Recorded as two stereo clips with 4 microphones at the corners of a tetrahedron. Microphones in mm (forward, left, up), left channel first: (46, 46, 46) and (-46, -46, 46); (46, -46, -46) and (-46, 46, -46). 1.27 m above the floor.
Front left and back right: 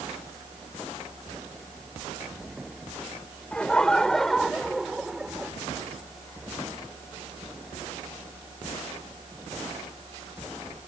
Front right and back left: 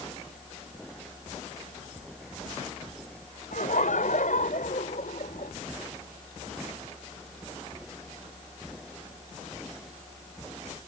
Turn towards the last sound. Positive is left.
turn(degrees=-50)